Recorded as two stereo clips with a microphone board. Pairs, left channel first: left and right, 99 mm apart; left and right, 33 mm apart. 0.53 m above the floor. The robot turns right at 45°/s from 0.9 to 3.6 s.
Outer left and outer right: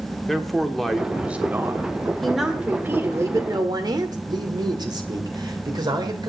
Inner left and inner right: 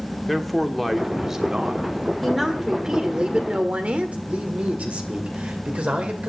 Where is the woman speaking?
175° left, 2.0 m; by 4.2 s 120° right, 2.0 m.